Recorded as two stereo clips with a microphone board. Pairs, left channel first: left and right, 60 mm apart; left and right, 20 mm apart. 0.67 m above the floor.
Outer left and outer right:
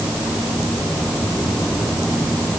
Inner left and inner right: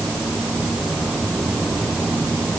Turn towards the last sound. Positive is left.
No sound to turn to.